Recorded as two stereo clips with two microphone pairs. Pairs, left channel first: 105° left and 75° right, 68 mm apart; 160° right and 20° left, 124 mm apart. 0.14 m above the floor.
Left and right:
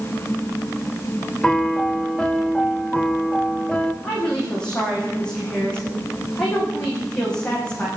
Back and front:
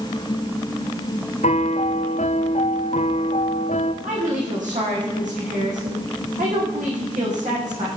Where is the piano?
170° right, 1.3 m.